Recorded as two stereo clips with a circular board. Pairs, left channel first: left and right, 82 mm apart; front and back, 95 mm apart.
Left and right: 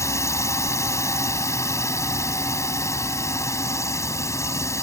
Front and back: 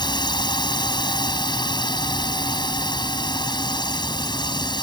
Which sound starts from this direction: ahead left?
A drone, at 0.0 s.